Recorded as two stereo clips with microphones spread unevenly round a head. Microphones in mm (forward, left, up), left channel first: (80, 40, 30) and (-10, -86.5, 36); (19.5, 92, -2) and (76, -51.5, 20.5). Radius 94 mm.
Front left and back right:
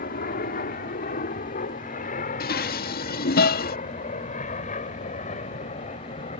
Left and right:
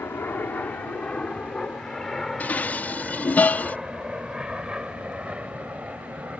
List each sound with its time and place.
0.0 s an aircraft: 35° left; by 6.4 s 10° left
2.4 s dishes clattering: 30° left